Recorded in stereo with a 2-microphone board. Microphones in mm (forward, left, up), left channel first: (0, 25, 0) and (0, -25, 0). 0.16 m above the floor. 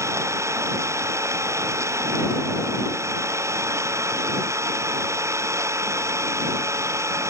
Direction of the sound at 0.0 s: 70° right (ahead or behind).